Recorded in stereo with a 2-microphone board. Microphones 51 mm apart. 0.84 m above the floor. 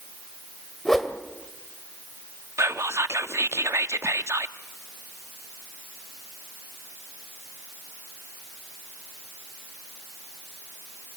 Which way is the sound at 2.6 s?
70° right (ahead or behind).